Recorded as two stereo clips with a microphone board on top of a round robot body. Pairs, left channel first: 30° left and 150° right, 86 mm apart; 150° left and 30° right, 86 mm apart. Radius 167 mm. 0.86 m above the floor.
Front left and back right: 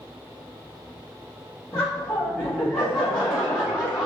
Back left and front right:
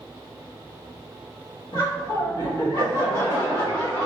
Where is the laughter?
105° left, 1.7 m.